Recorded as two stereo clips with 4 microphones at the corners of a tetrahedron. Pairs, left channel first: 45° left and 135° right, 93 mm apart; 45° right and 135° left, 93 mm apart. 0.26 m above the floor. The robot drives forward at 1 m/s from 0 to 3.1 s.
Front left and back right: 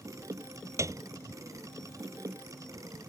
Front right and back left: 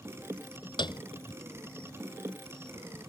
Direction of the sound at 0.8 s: 80° right.